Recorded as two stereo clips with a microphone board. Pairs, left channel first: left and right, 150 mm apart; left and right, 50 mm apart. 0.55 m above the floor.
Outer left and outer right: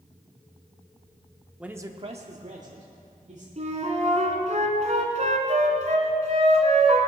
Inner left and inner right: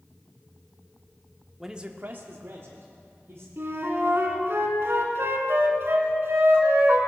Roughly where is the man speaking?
Centre.